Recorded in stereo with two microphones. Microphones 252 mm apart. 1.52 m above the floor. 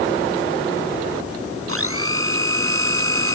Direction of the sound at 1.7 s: 60° right (ahead or behind).